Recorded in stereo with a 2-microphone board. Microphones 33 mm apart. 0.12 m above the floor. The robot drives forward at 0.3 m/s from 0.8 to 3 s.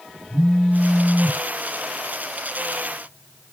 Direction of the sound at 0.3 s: 50° right (ahead or behind).